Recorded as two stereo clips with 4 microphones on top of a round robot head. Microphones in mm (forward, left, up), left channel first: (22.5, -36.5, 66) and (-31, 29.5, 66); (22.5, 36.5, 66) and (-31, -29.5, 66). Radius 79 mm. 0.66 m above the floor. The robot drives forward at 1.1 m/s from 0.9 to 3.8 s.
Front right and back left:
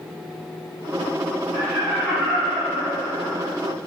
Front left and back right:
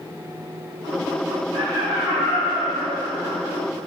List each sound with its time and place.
1.5 s laughter: 140° right, 2.5 m; by 3.5 s 160° right, 4 m